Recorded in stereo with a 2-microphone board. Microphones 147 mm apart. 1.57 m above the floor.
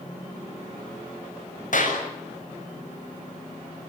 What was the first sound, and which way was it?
A clap, 60° left (ahead or behind).